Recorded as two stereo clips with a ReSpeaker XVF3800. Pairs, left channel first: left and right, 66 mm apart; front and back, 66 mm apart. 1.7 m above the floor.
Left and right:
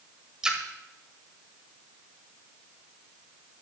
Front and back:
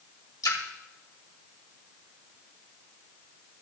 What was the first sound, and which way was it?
A splash, 15° right.